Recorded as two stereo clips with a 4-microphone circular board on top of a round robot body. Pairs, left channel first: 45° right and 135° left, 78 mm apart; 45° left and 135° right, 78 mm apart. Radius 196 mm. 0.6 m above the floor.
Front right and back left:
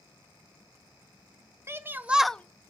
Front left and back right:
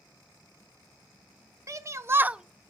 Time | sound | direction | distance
1.7 | a shout | 175° right | 0.8 m